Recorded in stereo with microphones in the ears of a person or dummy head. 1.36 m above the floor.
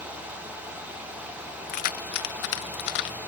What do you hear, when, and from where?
1.7 s keys jangling: 45° left (ahead or behind); by 3.2 s 55° left (ahead or behind)